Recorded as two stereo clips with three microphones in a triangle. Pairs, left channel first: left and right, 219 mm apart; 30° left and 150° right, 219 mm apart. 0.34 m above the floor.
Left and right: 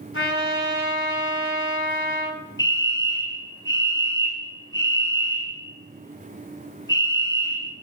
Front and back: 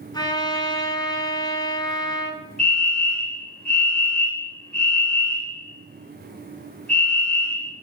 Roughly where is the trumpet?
Left.